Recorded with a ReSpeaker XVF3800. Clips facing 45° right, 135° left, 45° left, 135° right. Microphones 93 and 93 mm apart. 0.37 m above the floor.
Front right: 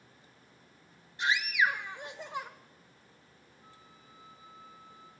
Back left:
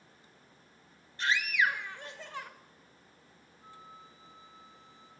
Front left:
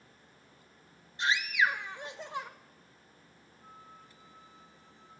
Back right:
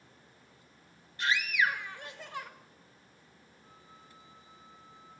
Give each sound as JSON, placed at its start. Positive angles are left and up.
{"t": 1.2, "sound": "a scream", "azimuth_deg": 10, "distance_m": 0.9}
{"t": 3.6, "sound": "a flute", "azimuth_deg": 70, "distance_m": 1.3}